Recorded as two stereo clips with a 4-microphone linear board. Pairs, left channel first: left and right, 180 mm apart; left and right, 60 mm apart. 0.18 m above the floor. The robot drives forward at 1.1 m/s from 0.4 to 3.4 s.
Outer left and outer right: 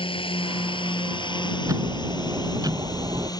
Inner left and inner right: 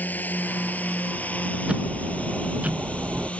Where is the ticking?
20° right (ahead or behind); by 3.3 s 25° right (ahead or behind).